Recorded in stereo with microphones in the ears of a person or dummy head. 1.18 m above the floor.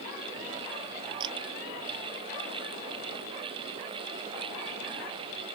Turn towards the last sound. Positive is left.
turn(degrees=-25)  # may be behind; listen again after turning